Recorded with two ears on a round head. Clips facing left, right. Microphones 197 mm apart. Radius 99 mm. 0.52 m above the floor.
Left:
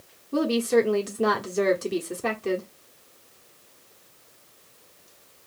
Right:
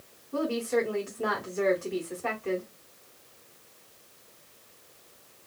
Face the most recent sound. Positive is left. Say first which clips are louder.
# left 6 dB
turn(degrees=50)  # may be behind; listen again after turning